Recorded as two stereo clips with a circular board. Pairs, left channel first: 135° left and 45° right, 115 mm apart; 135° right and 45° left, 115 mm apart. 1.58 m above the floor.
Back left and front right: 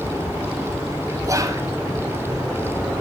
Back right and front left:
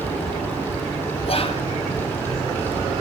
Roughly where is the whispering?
Right.